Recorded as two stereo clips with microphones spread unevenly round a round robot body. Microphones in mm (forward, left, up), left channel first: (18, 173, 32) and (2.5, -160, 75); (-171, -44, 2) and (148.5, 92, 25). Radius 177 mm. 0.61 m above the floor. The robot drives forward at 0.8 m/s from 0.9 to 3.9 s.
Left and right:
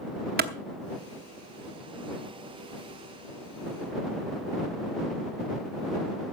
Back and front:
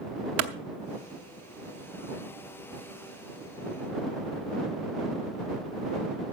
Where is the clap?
30° right, 1.1 m.